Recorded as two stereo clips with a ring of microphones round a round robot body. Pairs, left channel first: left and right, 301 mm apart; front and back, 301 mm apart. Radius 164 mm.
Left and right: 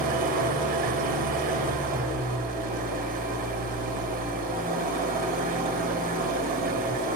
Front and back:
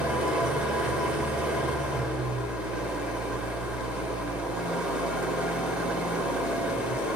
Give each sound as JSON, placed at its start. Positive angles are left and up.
{"t": 0.0, "sound": "an engine running", "azimuth_deg": -100, "distance_m": 0.9}